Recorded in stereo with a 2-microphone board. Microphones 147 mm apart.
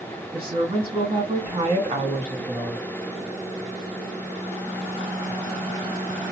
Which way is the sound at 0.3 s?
40° right (ahead or behind).